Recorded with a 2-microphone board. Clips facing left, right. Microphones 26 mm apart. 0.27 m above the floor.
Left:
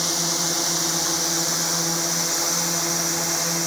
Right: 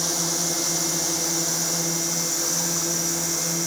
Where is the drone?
30° left (ahead or behind); by 3.7 s 45° left (ahead or behind).